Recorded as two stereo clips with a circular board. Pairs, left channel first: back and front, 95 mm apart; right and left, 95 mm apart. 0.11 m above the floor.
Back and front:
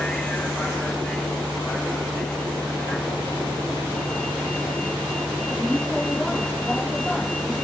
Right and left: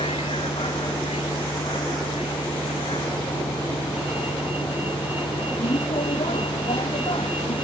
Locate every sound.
0.0 s a vehicle: 100° right